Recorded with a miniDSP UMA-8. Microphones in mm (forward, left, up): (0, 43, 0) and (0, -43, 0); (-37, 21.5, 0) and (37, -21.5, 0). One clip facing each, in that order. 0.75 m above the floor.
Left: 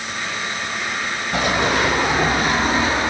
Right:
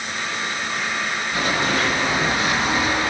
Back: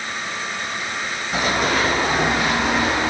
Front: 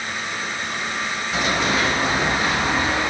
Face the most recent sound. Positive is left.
turn(degrees=150)